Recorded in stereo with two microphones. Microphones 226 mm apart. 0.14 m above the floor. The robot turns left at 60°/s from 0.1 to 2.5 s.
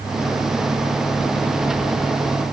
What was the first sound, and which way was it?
Only background noise.